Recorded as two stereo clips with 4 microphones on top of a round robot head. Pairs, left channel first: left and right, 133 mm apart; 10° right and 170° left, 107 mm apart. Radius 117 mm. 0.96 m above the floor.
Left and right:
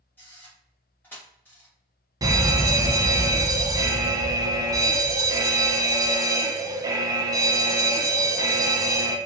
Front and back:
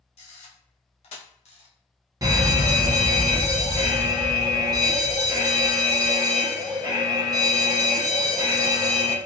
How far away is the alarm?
About 0.9 m.